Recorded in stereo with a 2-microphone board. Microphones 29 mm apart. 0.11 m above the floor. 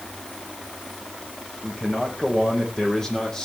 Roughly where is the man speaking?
Left.